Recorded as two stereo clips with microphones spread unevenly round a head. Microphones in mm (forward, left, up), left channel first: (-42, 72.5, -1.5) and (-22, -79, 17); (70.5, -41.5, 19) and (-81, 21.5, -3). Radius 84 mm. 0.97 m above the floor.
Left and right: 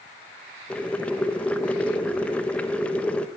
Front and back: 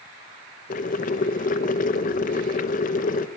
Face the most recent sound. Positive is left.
turn(degrees=20)